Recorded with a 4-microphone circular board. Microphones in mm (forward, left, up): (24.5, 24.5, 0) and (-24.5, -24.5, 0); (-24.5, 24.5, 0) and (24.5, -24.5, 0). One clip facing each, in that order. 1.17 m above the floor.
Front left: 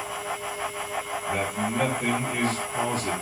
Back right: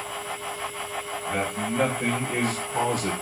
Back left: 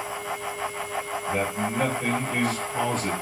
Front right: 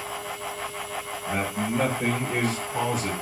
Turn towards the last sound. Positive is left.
turn(degrees=-145)